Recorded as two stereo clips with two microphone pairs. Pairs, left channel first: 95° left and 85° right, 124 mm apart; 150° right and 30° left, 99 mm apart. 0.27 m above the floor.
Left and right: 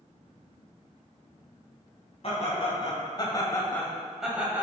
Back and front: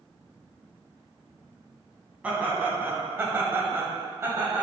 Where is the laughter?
105° left, 2 m; by 4.6 s 20° right, 1.6 m.